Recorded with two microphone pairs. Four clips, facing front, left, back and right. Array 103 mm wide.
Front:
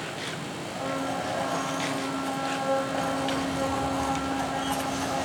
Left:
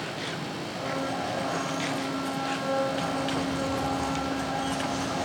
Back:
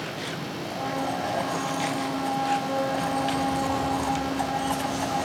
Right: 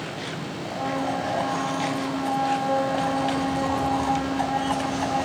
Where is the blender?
120° right, 6.5 m.